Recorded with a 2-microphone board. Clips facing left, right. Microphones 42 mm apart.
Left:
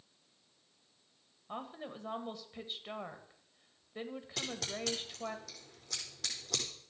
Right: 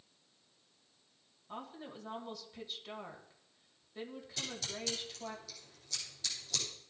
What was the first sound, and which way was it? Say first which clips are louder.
A woman speaking: left 3 dB; 25° left (ahead or behind).